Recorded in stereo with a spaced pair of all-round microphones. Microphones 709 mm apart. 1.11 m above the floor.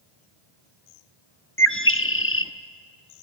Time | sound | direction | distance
1.6 | a bird | 20° left (ahead or behind) | 0.9 m